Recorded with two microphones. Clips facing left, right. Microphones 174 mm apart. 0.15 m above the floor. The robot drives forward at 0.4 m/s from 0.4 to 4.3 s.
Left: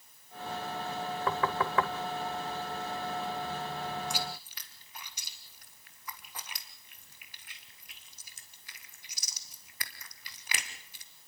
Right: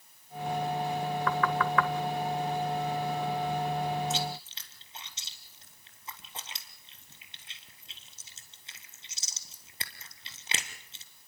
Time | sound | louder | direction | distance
1.3 | knocking | right 1 dB | 30° left (ahead or behind) | 1.5 m
4.1 | chewing | right 5 dB | 25° right (ahead or behind) | 2.5 m